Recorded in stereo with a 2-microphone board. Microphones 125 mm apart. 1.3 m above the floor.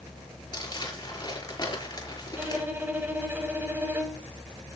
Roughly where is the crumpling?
Left.